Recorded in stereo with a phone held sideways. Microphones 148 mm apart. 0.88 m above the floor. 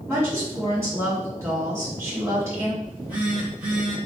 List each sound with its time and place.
0.1 s a woman speaking: 20° right (ahead or behind), 1.6 m
2.8 s a phone buzzing: 15° right (ahead or behind), 1.5 m